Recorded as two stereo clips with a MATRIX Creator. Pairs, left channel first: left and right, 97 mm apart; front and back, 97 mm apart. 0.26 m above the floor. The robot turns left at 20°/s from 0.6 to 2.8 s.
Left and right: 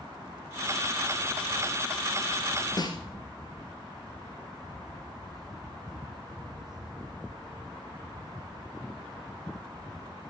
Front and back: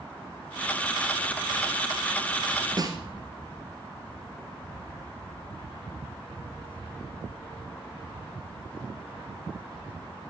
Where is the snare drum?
135° left, 1.7 m.